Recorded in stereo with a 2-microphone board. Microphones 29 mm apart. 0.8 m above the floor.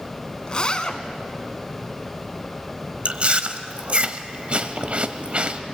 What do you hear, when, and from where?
0.5 s a zipper: 25° left (ahead or behind), 1.3 m
3.0 s chewing: 45° right (ahead or behind), 1.0 m